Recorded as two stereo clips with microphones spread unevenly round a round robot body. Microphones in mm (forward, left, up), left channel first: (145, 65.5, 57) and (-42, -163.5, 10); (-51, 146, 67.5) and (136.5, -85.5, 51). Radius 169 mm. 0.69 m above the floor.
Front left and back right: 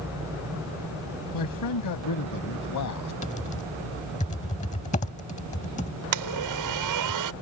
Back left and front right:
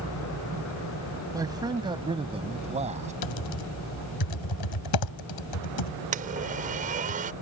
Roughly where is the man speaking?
Ahead left.